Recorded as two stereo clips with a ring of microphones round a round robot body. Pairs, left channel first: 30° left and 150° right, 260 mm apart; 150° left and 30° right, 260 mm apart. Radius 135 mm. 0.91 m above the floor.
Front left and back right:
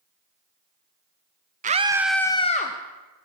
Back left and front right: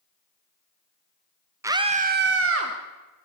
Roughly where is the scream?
Right.